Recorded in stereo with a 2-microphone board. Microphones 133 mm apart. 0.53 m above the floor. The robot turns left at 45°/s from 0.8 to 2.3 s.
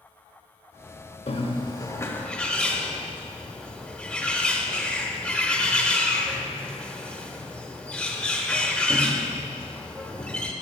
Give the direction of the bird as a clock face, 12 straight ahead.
10 o'clock.